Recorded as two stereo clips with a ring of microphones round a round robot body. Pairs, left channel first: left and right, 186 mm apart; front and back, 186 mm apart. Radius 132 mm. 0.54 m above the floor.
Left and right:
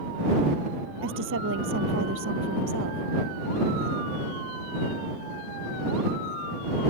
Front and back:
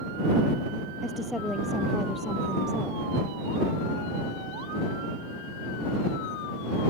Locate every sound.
1.0 s a woman speaking: 90° right